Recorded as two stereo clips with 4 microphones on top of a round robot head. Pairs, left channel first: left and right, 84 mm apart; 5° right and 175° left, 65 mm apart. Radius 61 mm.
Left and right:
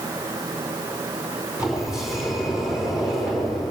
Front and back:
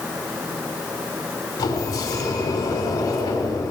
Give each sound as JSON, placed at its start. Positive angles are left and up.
{"t": 1.6, "sound": "a sliding door", "azimuth_deg": -5, "distance_m": 5.0}